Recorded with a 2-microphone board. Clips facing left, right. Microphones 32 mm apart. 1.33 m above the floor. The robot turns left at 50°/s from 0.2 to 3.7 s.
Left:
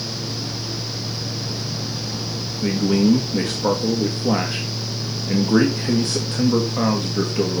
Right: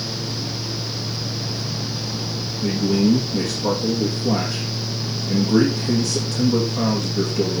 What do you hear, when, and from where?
2.6 s a man speaking: 100° left, 2 m; by 7.6 s 45° left, 2 m